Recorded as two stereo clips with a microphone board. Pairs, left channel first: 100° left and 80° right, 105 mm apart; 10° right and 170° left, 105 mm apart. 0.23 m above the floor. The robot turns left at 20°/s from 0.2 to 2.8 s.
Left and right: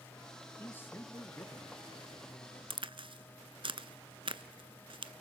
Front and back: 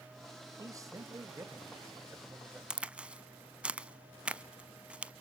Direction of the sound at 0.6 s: 155° left.